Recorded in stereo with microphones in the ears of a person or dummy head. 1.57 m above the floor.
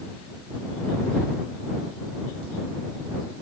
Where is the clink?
No clink in this recording.